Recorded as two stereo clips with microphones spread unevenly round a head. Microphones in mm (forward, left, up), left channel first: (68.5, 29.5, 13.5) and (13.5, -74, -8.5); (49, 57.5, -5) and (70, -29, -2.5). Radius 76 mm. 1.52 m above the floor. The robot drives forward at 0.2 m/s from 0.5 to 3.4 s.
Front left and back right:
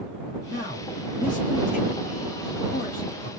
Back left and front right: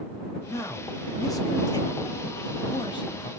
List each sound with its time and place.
0.5 s a man speaking: 50° left, 1.3 m; by 3.3 s 75° left, 1.0 m